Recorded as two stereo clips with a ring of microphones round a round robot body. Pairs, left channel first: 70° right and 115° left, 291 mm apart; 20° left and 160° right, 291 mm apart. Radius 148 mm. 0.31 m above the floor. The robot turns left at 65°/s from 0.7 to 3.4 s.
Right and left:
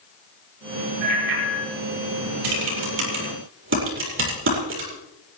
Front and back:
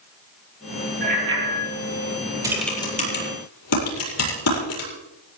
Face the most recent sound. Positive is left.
turn(degrees=60)